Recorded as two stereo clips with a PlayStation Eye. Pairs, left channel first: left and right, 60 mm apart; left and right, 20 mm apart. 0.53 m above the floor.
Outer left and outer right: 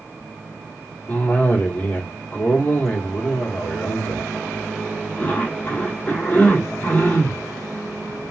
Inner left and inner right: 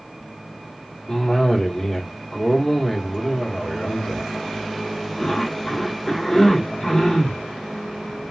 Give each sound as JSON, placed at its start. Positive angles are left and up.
{"t": 1.1, "sound": "a cough", "side_deg": 25, "distance_m": 1.1}